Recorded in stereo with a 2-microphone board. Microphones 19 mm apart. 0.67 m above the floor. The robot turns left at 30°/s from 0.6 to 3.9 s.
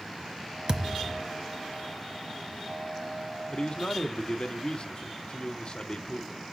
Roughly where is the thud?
Right.